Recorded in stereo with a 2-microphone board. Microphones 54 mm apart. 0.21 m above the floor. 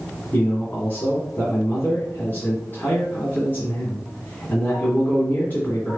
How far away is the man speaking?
About 1.7 m.